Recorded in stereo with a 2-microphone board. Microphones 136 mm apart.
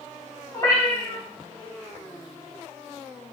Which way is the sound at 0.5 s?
35° left (ahead or behind).